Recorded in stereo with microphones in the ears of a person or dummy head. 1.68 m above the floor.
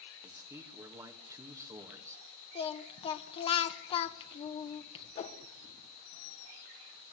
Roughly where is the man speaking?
Centre.